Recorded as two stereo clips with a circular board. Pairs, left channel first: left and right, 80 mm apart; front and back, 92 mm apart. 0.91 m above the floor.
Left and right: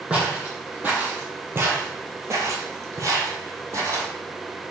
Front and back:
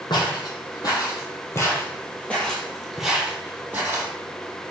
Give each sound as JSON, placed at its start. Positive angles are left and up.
{"t": 0.1, "sound": "footsteps", "azimuth_deg": -15, "distance_m": 1.6}